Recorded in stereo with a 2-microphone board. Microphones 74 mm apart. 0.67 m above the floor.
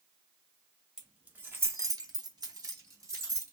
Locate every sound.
1.0 s keys jangling: 10° right (ahead or behind), 1.1 m; by 3.5 s 40° right (ahead or behind), 1.6 m